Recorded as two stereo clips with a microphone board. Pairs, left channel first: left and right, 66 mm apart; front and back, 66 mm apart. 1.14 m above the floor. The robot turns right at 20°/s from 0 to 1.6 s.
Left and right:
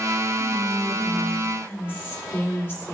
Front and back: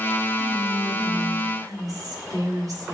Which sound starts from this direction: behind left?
Whispering, at 0.4 s.